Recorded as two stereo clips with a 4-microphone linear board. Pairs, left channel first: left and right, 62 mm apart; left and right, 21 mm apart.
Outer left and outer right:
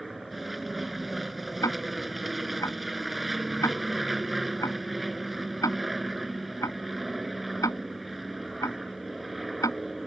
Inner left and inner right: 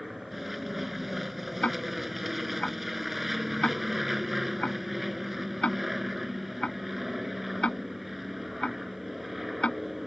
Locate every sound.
0.0 s an aircraft: centre (ahead or behind)
1.6 s ticking: 60° left (ahead or behind)